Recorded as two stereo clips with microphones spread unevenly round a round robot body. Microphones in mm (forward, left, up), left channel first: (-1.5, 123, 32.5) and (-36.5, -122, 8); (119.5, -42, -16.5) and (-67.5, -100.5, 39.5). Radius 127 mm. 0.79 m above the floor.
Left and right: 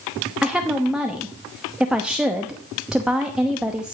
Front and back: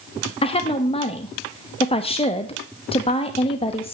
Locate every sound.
0.4 s a woman speaking: 15° right, 0.8 m